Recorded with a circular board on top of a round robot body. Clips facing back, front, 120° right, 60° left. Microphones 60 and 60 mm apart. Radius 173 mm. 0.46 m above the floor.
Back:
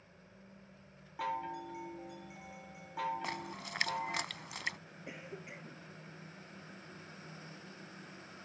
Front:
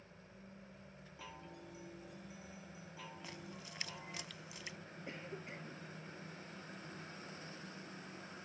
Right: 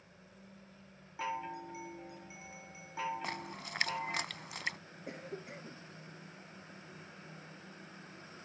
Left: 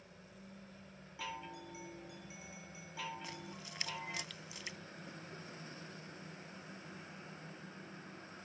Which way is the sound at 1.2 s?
175° right.